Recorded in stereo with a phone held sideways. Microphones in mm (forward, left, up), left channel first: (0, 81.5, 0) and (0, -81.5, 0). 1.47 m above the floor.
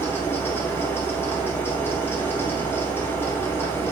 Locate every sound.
0.0 s a fan: 15° left (ahead or behind), 2.5 m